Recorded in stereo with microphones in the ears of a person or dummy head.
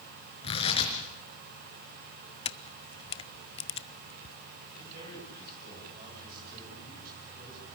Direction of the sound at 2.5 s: 30° left (ahead or behind).